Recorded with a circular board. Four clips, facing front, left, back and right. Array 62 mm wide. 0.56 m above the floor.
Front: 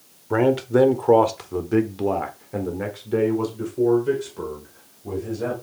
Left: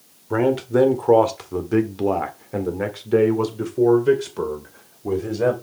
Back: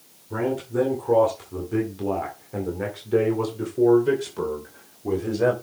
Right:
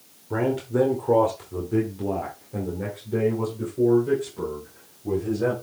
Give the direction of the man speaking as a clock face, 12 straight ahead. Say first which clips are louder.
Left 5 dB, front 7 dB; 11 o'clock.